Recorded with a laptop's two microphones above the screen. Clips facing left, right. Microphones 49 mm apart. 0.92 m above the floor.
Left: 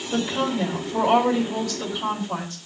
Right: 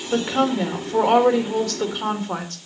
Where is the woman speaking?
55° right (ahead or behind), 3 m.